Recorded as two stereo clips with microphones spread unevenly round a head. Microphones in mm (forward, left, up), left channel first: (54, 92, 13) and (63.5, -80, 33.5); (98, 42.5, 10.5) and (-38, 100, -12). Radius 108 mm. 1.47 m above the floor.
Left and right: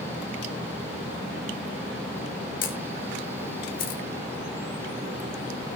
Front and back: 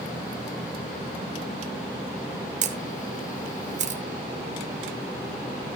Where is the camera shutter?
130° left, 1.2 m.